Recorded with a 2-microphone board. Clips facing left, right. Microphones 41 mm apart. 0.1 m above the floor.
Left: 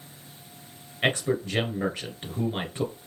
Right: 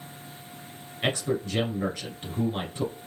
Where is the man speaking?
30° left (ahead or behind), 1.6 m.